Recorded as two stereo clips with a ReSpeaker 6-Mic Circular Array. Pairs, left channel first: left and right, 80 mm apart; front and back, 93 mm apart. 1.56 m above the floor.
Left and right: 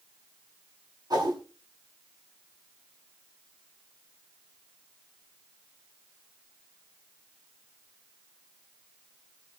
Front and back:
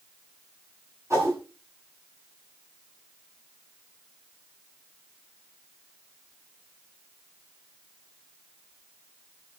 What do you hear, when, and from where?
1.1 s a whoosh: 125° right, 9 m